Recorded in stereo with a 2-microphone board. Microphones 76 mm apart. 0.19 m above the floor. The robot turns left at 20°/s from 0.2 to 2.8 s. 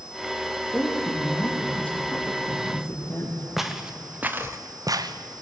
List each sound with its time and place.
0.7 s a woman speaking: 175° right, 5.5 m; by 3.5 s 140° left, 5.5 m
3.6 s footsteps: centre (ahead or behind), 2.5 m; by 5.4 s 75° right (ahead or behind), 1.8 m